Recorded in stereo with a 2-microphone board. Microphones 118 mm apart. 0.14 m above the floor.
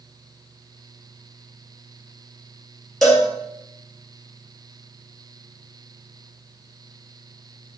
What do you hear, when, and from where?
3.0 s a cowbell: centre (ahead or behind), 3 m